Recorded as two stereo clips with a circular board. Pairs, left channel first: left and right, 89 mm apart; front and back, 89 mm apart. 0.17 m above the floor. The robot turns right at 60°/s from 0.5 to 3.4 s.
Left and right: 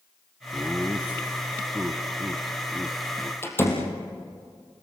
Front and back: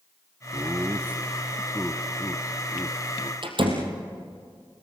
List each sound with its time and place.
0.5 s laughter: 165° right, 1.1 m; by 3.3 s straight ahead, 1.1 m
3.4 s a door slam: 150° left, 4 m